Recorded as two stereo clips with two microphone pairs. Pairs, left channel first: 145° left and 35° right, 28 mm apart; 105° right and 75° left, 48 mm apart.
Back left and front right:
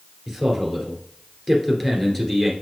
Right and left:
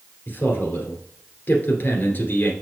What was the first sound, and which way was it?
A man speaking, 135° right.